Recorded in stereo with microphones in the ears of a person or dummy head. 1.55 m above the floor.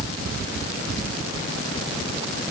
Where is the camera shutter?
No camera shutter in this recording.